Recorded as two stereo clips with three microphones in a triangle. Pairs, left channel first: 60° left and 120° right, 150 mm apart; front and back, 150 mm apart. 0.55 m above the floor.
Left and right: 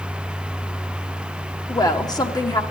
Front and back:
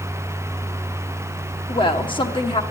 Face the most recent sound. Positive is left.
turn(degrees=20)